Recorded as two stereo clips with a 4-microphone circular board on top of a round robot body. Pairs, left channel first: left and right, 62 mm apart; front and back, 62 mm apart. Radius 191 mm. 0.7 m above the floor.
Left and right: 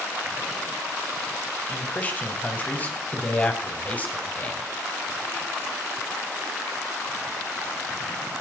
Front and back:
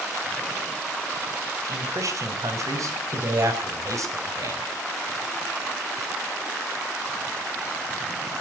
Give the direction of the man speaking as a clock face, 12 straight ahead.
7 o'clock.